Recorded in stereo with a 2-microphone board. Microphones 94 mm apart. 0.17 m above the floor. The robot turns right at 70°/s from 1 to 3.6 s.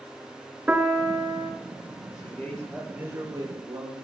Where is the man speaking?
135° left, 3.5 m; by 3.9 s 120° right, 3.5 m.